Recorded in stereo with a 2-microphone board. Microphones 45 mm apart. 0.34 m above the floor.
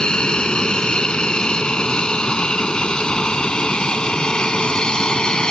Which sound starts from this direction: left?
An aircraft, at 0.0 s.